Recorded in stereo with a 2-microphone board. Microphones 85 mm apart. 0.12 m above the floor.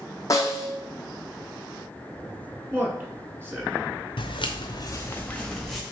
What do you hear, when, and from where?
0.3 s a snare drum: 40° left (ahead or behind), 1.1 m
2.7 s a man speaking: 25° right (ahead or behind), 1.3 m
4.2 s footsteps: 80° left, 0.9 m; by 5.8 s centre (ahead or behind), 1.4 m